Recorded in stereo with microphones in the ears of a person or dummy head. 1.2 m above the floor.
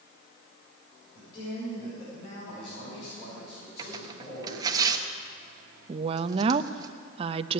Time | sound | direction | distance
1.1 | a man speaking | 20° left (ahead or behind) | 5.5 m
3.8 | tearing paper | 30° right (ahead or behind) | 1.3 m
5.9 | a woman speaking | 40° right (ahead or behind) | 0.6 m